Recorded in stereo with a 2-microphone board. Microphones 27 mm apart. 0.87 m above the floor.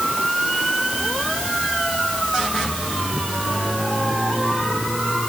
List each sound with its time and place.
Only background noise.